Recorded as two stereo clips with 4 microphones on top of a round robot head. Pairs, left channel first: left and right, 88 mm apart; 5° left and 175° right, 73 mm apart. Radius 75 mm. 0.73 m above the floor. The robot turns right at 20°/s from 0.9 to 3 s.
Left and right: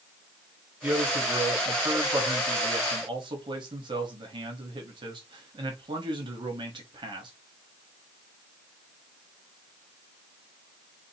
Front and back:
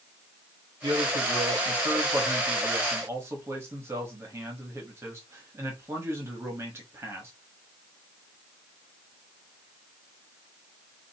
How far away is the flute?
I don't hear a flute.